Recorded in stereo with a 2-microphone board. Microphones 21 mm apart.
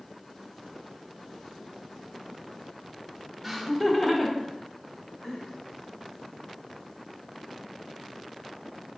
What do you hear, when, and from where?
3.4 s laughter: centre (ahead or behind), 0.8 m; by 5.4 s 40° left (ahead or behind), 1.7 m